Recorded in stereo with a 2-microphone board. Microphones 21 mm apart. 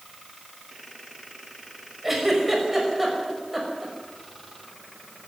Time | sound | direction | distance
2.0 | a giggle | 5° right (ahead or behind) | 5.5 m